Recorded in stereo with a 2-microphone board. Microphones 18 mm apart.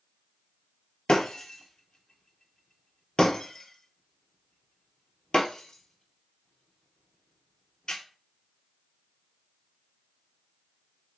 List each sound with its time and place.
1.1 s breaking glass: 50° left (ahead or behind), 0.7 m